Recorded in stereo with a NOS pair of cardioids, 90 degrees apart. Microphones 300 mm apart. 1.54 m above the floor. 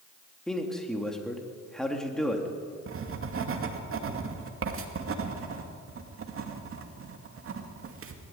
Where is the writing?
45° right, 2.5 m.